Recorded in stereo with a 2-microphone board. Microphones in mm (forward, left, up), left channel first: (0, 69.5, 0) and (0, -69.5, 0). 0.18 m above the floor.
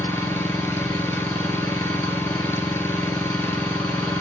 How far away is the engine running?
About 1.0 m.